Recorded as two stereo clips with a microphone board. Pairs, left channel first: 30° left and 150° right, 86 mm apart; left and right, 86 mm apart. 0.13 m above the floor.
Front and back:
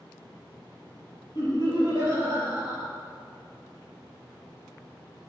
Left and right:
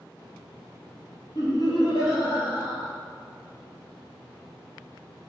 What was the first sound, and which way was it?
Laughter, 55° left.